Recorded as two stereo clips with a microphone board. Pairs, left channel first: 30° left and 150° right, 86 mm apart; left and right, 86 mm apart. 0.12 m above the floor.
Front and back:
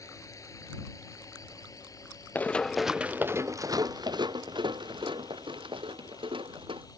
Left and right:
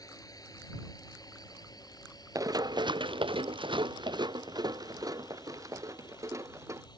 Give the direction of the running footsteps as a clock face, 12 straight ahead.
1 o'clock.